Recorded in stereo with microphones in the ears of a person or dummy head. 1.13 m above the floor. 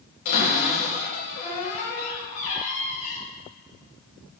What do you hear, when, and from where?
0.2 s a cupboard door: 50° left (ahead or behind), 3.5 m